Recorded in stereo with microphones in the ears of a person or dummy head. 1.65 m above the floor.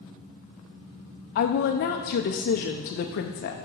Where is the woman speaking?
50° left (ahead or behind), 0.6 m.